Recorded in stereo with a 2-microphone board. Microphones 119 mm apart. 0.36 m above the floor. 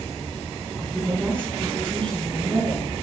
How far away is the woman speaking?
About 4 m.